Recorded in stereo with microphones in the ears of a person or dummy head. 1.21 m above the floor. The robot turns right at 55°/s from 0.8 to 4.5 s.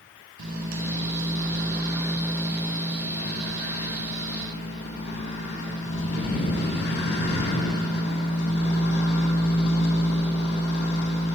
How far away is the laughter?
I don't hear laughter.